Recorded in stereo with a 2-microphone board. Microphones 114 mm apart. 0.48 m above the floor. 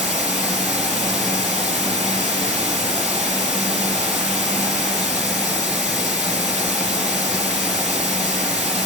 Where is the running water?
5° right (ahead or behind), 3 m.